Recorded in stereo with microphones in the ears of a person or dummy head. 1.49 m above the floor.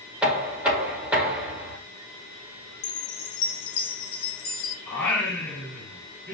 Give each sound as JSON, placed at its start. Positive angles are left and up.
{"t": 0.2, "sound": "knocking", "side_deg": -5, "distance_m": 1.2}
{"t": 2.8, "sound": "a chime", "side_deg": 70, "distance_m": 1.0}
{"t": 4.9, "sound": "singing", "side_deg": 10, "distance_m": 2.5}